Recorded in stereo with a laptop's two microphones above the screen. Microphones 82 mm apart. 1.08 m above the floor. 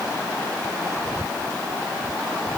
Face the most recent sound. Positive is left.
No sound to turn to.